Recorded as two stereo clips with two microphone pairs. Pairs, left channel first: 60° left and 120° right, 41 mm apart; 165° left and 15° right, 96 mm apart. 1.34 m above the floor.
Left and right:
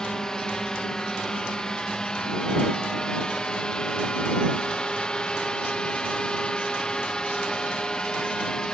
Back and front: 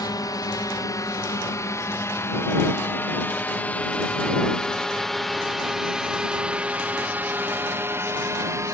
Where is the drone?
130° left; by 8.8 s 5° left.